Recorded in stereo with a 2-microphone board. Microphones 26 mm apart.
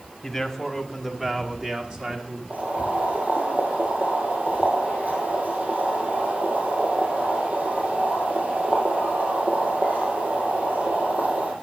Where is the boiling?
60° right (ahead or behind), 3.5 m.